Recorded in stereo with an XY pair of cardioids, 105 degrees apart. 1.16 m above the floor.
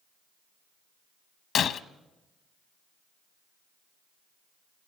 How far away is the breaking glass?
About 0.7 m.